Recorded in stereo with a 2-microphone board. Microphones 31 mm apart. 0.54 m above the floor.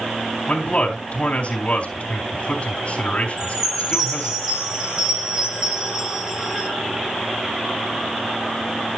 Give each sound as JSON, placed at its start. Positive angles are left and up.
{"t": 0.5, "sound": "a man speaking", "side_deg": 45, "distance_m": 3.5}
{"t": 3.4, "sound": "a chime", "side_deg": -25, "distance_m": 4.5}